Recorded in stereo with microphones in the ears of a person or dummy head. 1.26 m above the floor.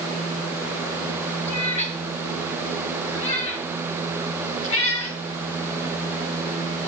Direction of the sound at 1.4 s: 35° left (ahead or behind).